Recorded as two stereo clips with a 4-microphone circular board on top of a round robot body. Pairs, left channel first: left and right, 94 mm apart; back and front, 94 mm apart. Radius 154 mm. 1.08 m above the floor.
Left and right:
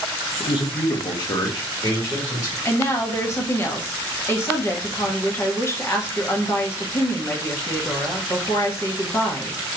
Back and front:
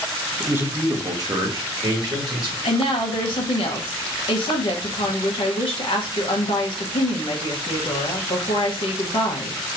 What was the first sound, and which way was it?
A man speaking, 65° left.